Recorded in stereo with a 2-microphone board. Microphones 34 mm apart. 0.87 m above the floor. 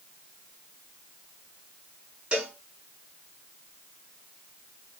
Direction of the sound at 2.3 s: 30° right (ahead or behind).